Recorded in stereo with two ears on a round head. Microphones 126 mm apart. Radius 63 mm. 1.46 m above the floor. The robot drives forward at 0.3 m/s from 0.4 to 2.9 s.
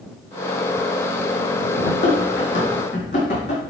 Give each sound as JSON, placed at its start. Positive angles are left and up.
{"t": 1.8, "sound": "running footsteps", "side_deg": 50, "distance_m": 3.5}